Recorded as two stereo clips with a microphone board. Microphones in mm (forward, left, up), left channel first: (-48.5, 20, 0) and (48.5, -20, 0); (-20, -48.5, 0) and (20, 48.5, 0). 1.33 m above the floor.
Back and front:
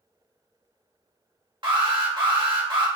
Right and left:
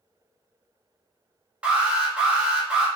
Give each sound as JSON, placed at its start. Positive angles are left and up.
{"t": 1.6, "sound": "an alarm", "azimuth_deg": -5, "distance_m": 1.3}